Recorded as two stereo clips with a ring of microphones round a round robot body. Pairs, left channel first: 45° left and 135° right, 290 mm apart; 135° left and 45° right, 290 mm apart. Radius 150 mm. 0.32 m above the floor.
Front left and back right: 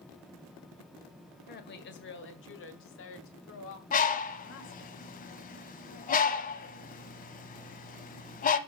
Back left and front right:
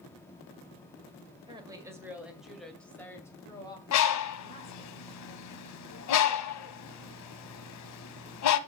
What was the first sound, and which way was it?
A woman speaking, 20° left.